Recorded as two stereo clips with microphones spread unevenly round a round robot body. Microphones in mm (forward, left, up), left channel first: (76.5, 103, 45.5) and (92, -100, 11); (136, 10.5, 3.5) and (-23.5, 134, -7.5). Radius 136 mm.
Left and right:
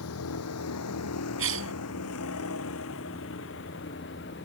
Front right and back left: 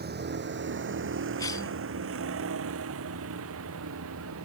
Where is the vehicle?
105° left; by 4.5 s 150° left.